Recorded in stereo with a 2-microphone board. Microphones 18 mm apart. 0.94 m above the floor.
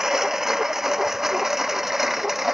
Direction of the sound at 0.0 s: 25° right (ahead or behind).